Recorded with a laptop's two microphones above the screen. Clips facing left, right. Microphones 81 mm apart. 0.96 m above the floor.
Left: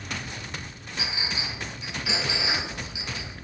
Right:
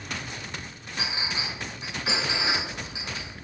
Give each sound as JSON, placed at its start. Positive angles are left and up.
{"t": 1.0, "sound": "a clink", "side_deg": -35, "distance_m": 7.5}